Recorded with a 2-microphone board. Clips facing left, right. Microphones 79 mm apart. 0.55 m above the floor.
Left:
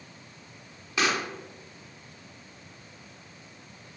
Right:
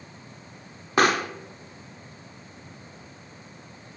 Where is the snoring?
I don't hear snoring.